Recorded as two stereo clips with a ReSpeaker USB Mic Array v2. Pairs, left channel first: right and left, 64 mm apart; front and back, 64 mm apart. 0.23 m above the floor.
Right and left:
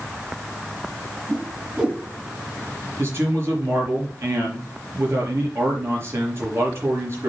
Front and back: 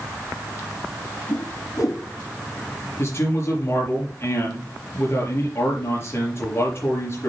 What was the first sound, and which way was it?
A whoosh, 20° left.